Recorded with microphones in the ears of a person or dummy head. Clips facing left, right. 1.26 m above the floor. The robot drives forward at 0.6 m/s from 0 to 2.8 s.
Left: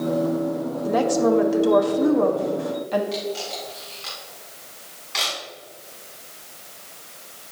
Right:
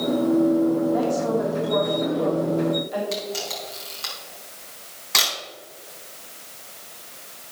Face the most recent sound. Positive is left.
turn(degrees=-60)  # may be behind; listen again after turning